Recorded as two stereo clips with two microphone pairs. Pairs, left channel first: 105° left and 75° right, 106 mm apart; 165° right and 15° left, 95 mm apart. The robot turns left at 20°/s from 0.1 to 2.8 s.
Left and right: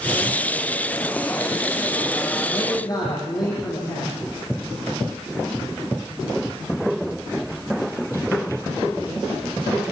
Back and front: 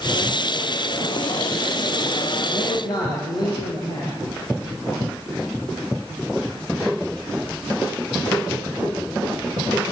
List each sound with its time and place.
2.5 s a man speaking: 160° left, 7 m; by 4.1 s 155° left, 7 m